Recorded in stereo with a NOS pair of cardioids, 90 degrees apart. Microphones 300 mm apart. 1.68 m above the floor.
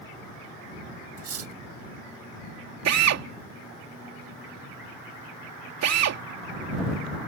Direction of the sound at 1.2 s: 55° right.